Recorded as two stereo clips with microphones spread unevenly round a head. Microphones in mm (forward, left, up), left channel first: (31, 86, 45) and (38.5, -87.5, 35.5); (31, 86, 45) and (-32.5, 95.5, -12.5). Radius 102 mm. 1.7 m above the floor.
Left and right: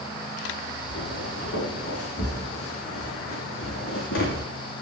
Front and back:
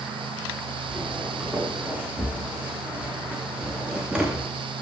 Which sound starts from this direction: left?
Footsteps, at 0.9 s.